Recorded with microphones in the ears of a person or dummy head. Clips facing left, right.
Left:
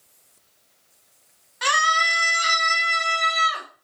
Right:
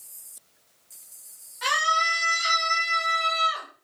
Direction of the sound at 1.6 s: 65° left (ahead or behind).